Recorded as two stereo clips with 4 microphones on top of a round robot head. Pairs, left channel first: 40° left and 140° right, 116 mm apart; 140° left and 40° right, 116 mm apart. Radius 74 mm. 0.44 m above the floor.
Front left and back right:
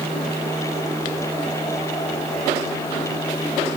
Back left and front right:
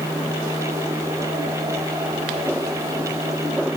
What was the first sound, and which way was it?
Only background noise.